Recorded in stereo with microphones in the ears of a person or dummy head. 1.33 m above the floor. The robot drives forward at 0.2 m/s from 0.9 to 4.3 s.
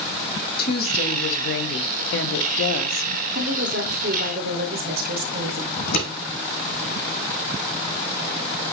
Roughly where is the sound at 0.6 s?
Left.